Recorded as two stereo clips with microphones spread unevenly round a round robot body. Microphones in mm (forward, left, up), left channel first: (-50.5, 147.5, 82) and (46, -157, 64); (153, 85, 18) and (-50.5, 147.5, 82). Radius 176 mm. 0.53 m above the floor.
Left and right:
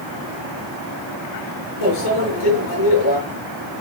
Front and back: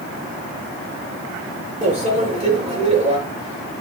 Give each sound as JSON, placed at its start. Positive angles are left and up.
{"t": 1.8, "sound": "a microwave", "azimuth_deg": 100, "distance_m": 7.0}